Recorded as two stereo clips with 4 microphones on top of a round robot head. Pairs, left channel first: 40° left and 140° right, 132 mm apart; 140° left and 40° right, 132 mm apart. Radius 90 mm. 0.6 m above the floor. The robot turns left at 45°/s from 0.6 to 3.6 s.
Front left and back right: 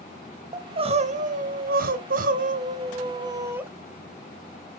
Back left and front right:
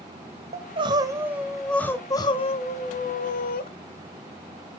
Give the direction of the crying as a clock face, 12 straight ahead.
3 o'clock.